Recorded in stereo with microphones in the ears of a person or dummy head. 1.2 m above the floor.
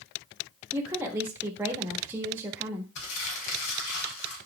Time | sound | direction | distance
0.7 | a woman speaking | 15° right (ahead or behind) | 1.5 m
3.0 | crumpling | 65° left (ahead or behind) | 3.5 m